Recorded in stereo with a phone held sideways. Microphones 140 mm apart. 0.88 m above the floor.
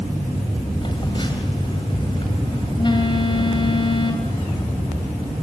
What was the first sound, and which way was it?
A phone buzzing, 35° left (ahead or behind).